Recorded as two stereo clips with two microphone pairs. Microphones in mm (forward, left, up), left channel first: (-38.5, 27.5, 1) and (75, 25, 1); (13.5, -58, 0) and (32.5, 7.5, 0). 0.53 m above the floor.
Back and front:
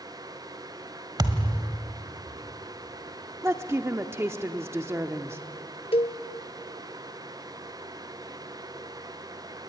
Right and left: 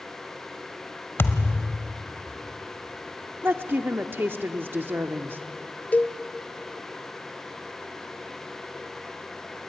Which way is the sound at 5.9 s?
165° right.